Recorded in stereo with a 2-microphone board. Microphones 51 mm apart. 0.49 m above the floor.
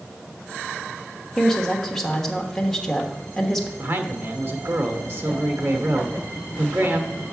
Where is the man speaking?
50° right (ahead or behind), 1.1 m.